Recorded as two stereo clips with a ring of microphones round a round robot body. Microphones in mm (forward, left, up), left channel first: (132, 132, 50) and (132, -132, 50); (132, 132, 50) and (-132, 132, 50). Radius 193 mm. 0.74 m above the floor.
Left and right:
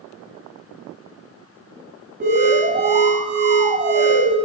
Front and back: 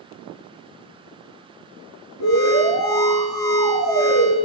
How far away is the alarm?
About 7.5 m.